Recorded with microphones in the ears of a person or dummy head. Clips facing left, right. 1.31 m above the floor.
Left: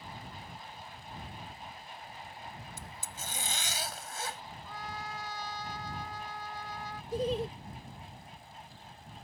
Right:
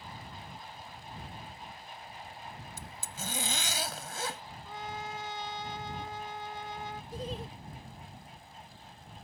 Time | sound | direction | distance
2.8 | a zipper | 65° right (ahead or behind) | ?
4.7 | a trumpet | 20° right (ahead or behind) | ?
7.1 | laughter | 60° left (ahead or behind) | ?